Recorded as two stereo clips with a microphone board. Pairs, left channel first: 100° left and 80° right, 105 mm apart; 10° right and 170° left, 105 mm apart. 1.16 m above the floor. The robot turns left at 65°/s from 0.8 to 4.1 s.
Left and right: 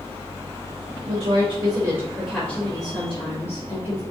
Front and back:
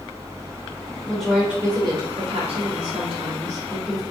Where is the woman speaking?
85° right, 3.5 m; by 4.0 s 80° left, 3.5 m.